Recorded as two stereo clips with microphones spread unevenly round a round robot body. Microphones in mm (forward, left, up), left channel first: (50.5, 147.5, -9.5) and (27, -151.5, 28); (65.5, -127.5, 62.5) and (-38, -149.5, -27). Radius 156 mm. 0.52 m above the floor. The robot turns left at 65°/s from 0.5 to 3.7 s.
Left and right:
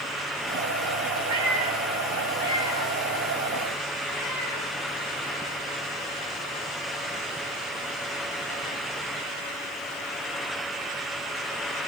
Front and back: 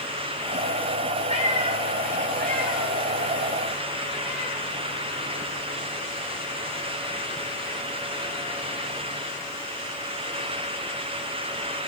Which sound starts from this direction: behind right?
A cat meowing, at 1.3 s.